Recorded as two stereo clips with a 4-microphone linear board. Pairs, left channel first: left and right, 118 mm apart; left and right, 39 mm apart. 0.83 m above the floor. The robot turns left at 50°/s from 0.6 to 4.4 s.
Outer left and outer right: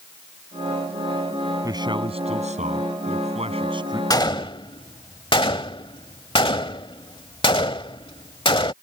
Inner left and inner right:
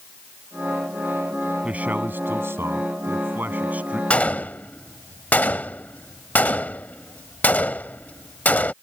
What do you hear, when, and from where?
1.6 s a man speaking: 30° right; by 4.0 s 145° right
4.1 s a gunshot: 35° left (ahead or behind); by 8.7 s 45° left (ahead or behind)